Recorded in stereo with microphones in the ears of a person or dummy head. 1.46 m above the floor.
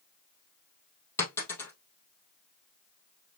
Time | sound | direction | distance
1.2 | a dropped coin | 10° left (ahead or behind) | 2 m